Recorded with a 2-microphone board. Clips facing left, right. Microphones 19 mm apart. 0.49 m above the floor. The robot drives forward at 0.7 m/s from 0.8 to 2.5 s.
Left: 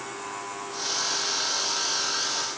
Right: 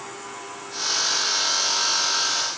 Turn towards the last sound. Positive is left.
No sound to turn to.